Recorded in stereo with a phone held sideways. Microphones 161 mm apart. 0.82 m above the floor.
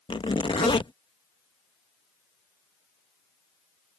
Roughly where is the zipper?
Left.